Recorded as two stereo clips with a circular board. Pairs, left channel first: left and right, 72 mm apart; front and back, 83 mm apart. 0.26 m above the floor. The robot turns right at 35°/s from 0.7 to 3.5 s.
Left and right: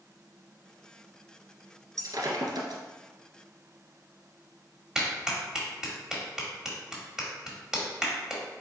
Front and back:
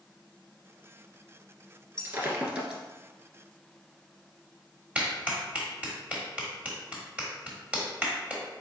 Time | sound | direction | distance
2.0 | breaking glass | 130° right | 1.4 m
5.0 | a clap | 155° right | 1.0 m